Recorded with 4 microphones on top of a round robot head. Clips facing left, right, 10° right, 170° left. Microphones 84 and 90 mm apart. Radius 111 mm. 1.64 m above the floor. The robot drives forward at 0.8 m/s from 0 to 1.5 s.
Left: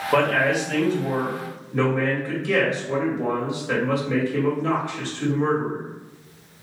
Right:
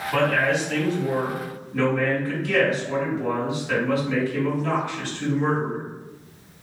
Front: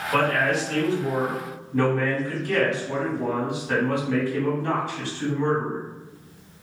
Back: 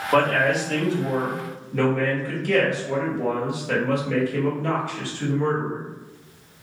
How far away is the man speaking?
About 1.3 m.